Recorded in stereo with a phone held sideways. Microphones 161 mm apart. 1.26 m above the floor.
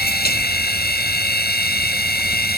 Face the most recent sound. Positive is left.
turn(degrees=80)